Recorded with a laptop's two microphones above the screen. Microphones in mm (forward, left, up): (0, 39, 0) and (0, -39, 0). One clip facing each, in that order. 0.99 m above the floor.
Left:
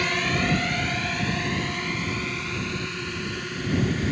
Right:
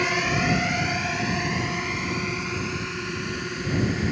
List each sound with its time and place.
0.0 s a drone: 10° right (ahead or behind)